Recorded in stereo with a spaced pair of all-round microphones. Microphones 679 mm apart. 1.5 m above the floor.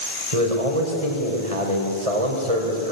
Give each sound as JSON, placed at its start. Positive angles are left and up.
{"t": 0.3, "sound": "a man speaking", "side_deg": -55, "distance_m": 5.0}